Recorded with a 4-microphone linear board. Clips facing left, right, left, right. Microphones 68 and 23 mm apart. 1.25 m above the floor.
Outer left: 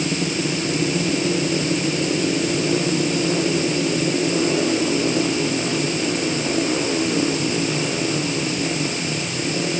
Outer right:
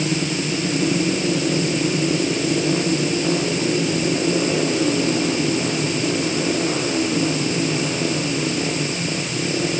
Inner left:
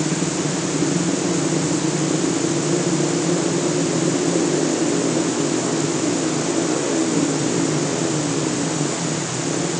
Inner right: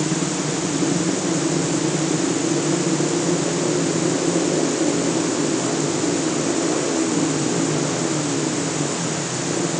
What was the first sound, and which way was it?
Only background noise.